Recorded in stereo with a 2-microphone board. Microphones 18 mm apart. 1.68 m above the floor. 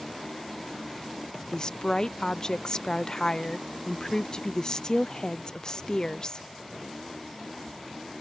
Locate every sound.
1.5 s a woman speaking: 35° left (ahead or behind)